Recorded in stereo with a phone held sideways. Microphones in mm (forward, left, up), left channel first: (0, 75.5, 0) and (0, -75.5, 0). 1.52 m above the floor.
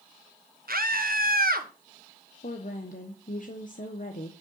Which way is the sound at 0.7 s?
80° right.